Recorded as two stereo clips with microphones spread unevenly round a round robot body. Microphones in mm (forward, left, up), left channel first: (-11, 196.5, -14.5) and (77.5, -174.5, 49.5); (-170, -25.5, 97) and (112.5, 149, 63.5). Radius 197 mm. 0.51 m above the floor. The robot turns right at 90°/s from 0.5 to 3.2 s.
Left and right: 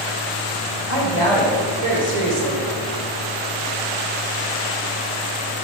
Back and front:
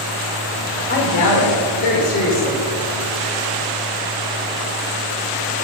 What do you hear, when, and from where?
0.9 s a woman speaking: 150° left, 1.7 m; by 2.6 s 55° right, 1.7 m